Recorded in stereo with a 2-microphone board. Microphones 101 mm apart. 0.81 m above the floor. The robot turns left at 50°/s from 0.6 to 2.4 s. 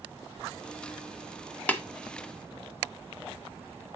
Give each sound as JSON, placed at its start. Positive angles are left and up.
{"t": 1.7, "sound": "tapping", "side_deg": 15, "distance_m": 1.0}